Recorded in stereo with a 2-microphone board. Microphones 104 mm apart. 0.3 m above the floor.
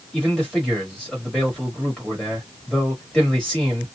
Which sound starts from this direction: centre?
A man speaking, at 0.1 s.